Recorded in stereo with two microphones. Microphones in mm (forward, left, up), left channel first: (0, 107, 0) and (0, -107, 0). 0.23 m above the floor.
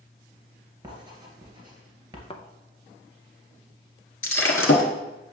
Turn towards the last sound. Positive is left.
turn(degrees=75)  # may be behind; listen again after turning